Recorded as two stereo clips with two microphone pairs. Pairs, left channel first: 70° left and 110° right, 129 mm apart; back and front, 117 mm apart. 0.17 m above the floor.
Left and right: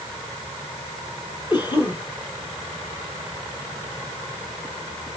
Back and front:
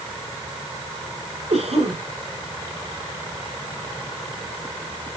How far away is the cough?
About 5 m.